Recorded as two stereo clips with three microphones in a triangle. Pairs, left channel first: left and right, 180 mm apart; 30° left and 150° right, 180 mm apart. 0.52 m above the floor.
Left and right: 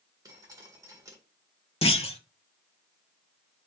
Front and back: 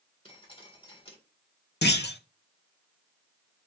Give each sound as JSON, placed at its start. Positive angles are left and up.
{"t": 0.2, "sound": "dripping", "azimuth_deg": -25, "distance_m": 1.7}
{"t": 1.8, "sound": "a clunk", "azimuth_deg": 40, "distance_m": 0.6}